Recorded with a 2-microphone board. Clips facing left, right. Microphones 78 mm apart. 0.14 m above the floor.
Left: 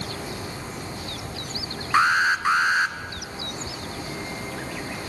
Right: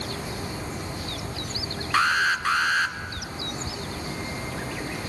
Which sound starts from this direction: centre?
An alarm, at 1.9 s.